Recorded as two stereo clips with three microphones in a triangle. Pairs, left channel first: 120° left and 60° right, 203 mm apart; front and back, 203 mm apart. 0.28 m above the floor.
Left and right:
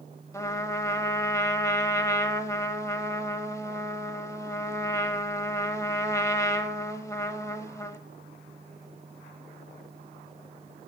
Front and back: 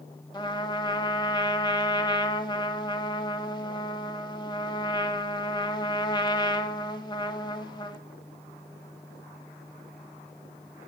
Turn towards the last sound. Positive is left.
turn(degrees=55)